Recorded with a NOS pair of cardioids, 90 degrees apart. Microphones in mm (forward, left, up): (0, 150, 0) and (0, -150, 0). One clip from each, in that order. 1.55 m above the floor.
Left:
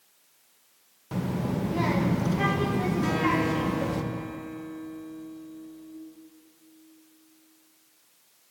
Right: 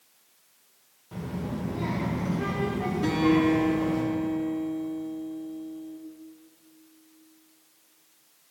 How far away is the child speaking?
About 1.0 m.